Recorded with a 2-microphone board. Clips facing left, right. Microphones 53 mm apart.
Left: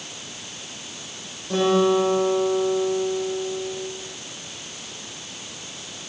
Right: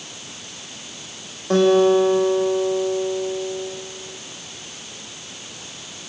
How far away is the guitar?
About 8.5 m.